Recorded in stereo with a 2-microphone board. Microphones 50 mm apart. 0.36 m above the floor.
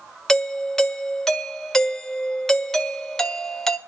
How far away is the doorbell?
About 1.3 m.